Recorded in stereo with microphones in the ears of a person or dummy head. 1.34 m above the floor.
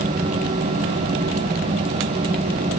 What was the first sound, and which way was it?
Only background noise.